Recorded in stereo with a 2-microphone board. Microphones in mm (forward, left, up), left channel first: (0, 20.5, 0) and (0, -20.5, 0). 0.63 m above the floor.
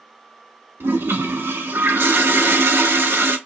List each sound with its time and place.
0.8 s a toilet flushing: 70° right (ahead or behind), 0.7 m